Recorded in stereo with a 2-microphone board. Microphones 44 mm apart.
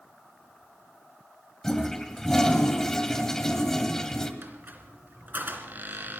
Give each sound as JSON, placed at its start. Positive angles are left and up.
{"t": 1.6, "sound": "a toilet flushing", "side_deg": 10, "distance_m": 1.6}
{"t": 4.4, "sound": "a squeak", "side_deg": -45, "distance_m": 2.5}